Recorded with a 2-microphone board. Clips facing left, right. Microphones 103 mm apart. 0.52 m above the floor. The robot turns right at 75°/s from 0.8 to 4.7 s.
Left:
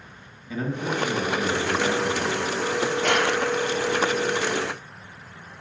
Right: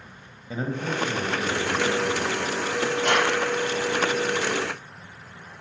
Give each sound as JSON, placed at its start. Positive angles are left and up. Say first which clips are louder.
{"t": 0.5, "sound": "a man speaking", "louder": "left 1 dB", "azimuth_deg": -30, "distance_m": 2.5}
{"t": 3.0, "sound": "a clap", "louder": "right 1 dB", "side_deg": 80, "distance_m": 8.0}